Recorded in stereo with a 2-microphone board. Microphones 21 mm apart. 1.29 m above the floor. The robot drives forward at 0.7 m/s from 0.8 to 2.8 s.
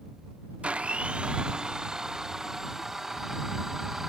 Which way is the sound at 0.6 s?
60° right (ahead or behind).